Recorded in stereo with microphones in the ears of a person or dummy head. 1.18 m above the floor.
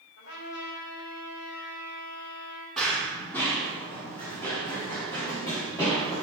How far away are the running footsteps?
About 2.5 m.